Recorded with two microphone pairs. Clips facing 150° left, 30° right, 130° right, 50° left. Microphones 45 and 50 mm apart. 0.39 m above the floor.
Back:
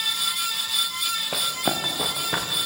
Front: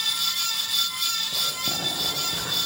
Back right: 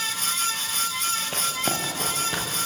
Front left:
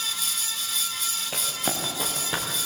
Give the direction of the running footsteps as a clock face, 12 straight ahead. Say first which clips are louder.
Back 3 dB, back right 3 dB; 7 o'clock.